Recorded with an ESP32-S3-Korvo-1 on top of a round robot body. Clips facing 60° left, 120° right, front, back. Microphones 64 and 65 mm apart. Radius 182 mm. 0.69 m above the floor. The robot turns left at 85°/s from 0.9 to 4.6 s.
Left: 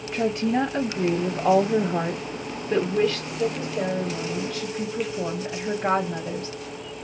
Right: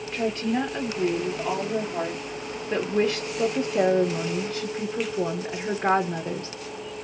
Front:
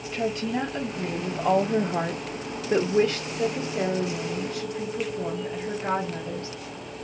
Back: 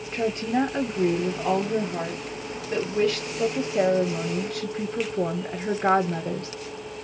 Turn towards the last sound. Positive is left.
turn(degrees=175)